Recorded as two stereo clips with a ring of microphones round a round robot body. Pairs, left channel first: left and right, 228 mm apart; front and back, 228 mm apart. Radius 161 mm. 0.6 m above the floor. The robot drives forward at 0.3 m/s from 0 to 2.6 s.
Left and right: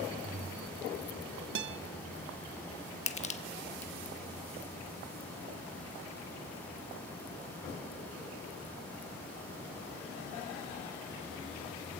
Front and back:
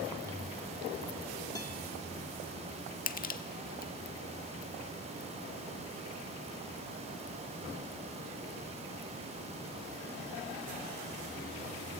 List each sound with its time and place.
1.6 s a guitar: 75° right, 0.6 m; by 1.8 s 85° right, 0.6 m
3.1 s crushing: 40° left, 1.5 m